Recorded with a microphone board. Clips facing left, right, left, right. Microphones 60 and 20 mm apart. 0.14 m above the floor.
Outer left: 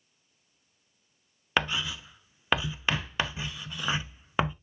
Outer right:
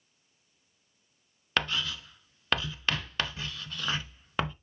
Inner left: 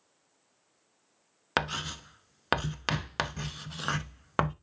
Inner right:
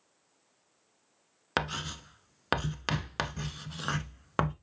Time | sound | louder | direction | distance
1.6 | writing | outer left 2 dB, inner left 2 dB | 15° left (ahead or behind) | 0.6 m